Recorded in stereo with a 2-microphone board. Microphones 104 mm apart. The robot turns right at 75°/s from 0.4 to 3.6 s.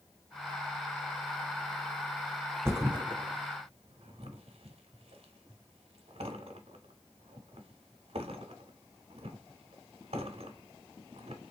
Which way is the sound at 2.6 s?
25° right (ahead or behind).